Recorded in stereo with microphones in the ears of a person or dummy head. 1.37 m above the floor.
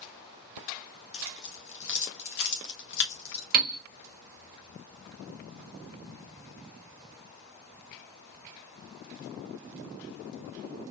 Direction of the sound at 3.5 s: 50° right (ahead or behind).